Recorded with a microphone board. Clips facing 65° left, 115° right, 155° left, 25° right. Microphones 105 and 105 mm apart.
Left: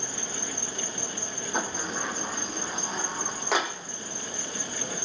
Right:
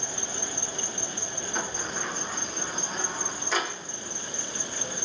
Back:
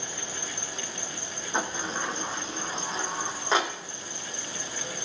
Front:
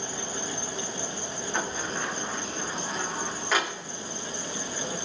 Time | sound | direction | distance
0.0 | an insect | 25° left | 1.8 m
1.5 | a sliding door | 90° left | 2 m